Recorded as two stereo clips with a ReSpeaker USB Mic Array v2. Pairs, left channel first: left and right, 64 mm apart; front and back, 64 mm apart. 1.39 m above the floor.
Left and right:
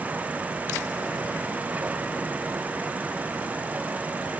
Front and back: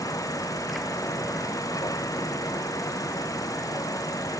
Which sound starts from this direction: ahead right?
An insect, at 0.0 s.